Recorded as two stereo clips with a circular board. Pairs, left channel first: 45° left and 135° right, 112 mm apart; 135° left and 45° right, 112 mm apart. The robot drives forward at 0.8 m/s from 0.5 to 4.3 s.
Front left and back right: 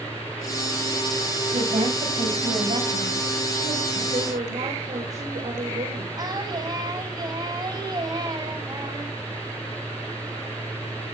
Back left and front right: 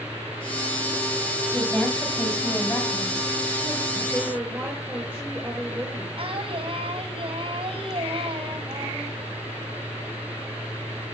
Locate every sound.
1.5 s a woman speaking: 140° right, 6.5 m; by 4.0 s 150° right, 8.5 m
4.1 s a woman speaking: 125° right, 5.5 m
6.2 s singing: 85° right, 5.5 m